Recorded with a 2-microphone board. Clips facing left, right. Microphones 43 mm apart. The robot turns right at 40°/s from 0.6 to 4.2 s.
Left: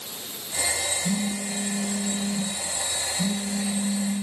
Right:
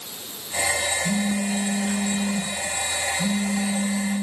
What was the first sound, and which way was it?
A phone buzzing, centre (ahead or behind).